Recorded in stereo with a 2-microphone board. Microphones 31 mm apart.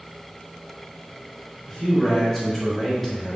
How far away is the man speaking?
About 1.5 m.